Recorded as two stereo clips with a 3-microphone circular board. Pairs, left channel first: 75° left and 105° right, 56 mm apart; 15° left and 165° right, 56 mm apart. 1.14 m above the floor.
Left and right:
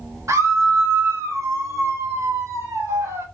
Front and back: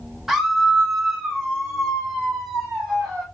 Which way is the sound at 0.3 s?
80° right.